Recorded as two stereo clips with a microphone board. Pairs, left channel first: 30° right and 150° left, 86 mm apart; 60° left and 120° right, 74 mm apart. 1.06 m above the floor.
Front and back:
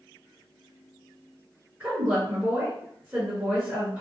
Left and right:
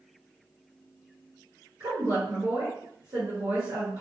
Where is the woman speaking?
145° right, 1.0 m.